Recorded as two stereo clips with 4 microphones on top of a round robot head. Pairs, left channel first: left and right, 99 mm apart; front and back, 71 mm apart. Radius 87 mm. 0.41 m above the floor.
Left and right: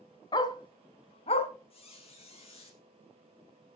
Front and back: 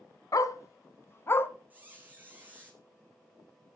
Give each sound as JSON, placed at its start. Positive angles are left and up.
{"t": 0.3, "sound": "a dog barking", "azimuth_deg": 35, "distance_m": 1.4}
{"t": 1.7, "sound": "a squeak", "azimuth_deg": 110, "distance_m": 4.0}